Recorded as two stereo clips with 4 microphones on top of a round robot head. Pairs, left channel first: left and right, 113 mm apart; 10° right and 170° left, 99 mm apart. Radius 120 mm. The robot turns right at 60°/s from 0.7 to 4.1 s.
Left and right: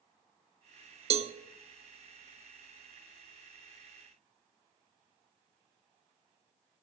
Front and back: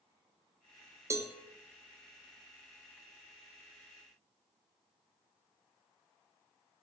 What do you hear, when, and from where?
1.1 s a cowbell: 125° right, 0.7 m; by 1.3 s 110° right, 0.7 m